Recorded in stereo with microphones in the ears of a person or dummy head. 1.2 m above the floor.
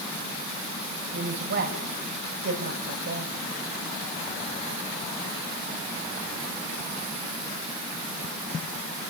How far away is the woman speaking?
About 6.5 m.